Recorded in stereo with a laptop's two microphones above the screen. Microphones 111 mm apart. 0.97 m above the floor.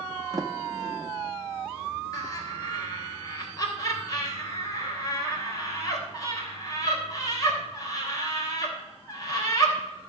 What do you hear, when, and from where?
0.3 s a sliding door: 30° right (ahead or behind), 0.7 m
2.1 s laughter: 30° left (ahead or behind), 3.5 m